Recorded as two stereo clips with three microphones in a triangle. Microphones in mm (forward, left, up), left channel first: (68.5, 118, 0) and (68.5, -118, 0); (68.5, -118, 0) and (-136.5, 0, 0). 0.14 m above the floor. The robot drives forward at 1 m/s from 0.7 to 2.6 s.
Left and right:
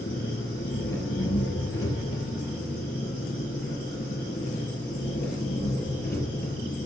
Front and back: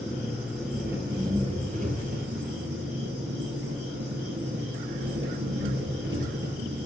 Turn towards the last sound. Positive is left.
turn(degrees=125)